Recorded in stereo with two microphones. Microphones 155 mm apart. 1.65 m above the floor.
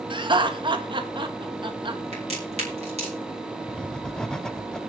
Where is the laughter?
35° right (ahead or behind), 1.9 m.